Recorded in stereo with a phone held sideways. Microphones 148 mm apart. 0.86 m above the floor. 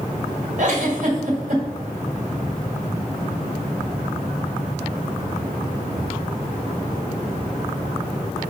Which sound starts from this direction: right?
A giggle, at 0.6 s.